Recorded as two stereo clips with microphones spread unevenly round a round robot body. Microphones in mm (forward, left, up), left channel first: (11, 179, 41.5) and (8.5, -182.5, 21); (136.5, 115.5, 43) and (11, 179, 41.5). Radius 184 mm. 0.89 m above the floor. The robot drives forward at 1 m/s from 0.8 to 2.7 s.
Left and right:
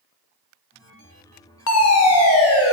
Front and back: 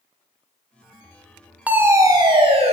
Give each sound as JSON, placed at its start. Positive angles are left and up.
{"t": 1.7, "sound": "a fire alarm", "azimuth_deg": 80, "distance_m": 1.5}